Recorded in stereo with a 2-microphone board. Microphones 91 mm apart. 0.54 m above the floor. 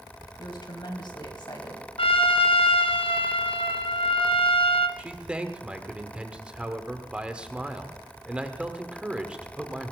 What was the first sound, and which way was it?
A woman speaking, 55° left (ahead or behind).